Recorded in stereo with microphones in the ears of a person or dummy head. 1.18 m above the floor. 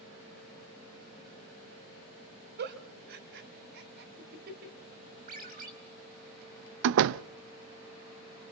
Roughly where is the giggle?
Right.